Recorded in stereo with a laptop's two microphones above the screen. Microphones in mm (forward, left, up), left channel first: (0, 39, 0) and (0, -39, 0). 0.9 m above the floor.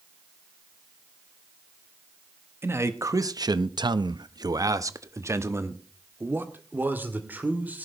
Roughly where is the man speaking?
Right.